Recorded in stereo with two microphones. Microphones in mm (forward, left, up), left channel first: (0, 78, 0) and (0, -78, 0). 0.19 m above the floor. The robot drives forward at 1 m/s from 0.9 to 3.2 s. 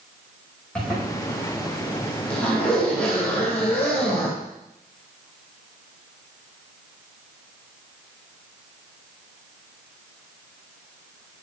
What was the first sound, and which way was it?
A zipper, 5° left (ahead or behind).